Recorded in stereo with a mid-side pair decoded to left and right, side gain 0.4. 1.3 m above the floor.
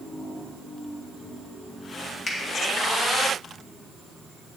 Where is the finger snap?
50° left, 2 m.